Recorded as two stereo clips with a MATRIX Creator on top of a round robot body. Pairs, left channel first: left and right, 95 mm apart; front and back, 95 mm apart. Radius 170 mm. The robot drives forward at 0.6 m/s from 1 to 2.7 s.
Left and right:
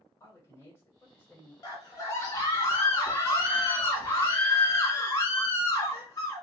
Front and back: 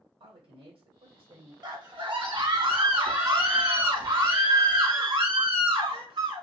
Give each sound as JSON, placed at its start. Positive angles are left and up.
{"t": 0.2, "sound": "a man speaking", "azimuth_deg": 155, "distance_m": 2.5}
{"t": 1.6, "sound": "a scream", "azimuth_deg": 140, "distance_m": 2.5}